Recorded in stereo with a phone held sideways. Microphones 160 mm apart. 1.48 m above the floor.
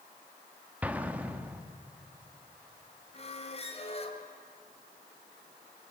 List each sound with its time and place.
0.8 s an explosion: 10° right (ahead or behind), 1.3 m
3.1 s a squeak: 40° left (ahead or behind), 2 m